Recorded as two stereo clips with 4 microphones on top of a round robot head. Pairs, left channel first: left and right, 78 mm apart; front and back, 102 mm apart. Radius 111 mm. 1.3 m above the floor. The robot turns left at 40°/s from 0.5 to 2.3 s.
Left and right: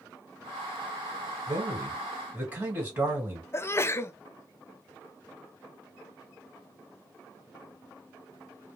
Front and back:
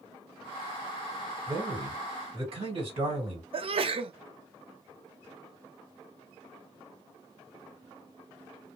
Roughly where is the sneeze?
Behind left.